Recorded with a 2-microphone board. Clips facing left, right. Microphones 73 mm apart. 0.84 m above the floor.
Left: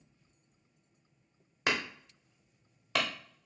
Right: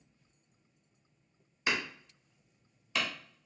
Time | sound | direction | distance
1.7 | hammering | 70° left (ahead or behind) | 1.1 m